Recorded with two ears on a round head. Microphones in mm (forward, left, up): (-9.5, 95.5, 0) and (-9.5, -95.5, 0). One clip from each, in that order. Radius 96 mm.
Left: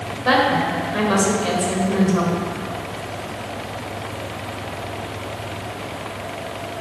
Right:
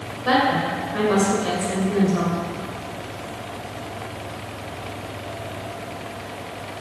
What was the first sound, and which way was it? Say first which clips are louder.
A woman speaking: left 2 dB; 20° left (ahead or behind).